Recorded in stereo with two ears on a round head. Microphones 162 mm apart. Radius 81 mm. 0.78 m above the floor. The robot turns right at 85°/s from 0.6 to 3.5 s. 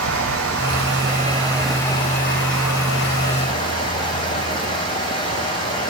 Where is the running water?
90° right, 3.5 m; by 5.9 s 160° left, 3.5 m.